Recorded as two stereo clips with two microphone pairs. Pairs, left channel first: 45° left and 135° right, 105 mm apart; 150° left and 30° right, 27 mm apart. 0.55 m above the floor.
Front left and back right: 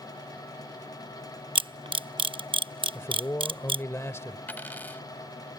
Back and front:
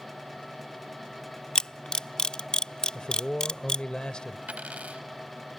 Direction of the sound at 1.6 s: 155° right.